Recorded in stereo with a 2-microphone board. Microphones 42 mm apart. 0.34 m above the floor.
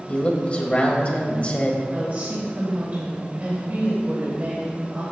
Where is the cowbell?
No cowbell in this recording.